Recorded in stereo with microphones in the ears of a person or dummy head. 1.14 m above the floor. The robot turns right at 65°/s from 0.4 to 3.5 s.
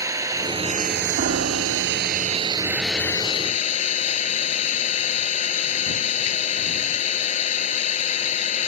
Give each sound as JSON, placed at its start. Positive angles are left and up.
{"t": 0.0, "sound": "an engine running", "azimuth_deg": -165}
{"t": 1.2, "sound": "a piano", "azimuth_deg": -135}